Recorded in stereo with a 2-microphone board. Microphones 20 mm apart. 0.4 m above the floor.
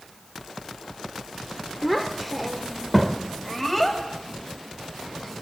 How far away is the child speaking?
About 0.7 m.